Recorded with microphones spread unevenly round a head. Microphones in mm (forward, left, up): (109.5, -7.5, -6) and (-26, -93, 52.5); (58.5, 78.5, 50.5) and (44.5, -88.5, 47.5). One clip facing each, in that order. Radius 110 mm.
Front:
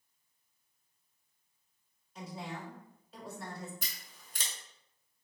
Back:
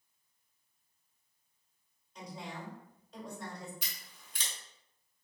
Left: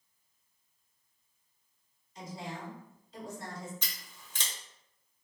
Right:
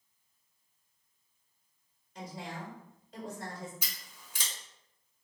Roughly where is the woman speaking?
Ahead right.